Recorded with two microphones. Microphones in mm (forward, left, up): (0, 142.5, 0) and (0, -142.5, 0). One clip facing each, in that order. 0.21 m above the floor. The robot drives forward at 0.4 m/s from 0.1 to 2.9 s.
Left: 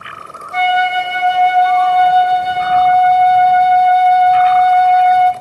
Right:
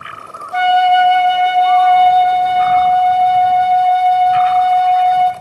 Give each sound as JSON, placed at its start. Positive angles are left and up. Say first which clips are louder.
{"t": 0.5, "sound": "a flute", "louder": "right 4 dB", "side_deg": 25, "distance_m": 0.6}